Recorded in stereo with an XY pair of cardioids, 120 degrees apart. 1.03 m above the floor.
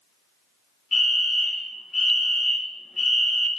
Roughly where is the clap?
I don't hear a clap.